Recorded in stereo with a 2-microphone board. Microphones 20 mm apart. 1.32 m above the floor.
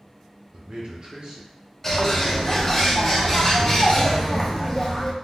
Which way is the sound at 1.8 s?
20° left (ahead or behind).